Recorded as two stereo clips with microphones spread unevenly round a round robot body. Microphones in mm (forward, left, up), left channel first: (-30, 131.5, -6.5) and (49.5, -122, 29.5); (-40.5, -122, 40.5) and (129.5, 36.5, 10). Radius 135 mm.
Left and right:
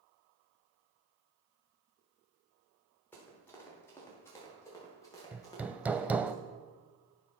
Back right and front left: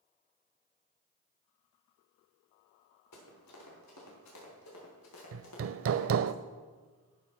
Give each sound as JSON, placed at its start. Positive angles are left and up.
{"t": 3.1, "sound": "running footsteps", "azimuth_deg": -170, "distance_m": 7.0}
{"t": 5.3, "sound": "hammering", "azimuth_deg": 15, "distance_m": 0.6}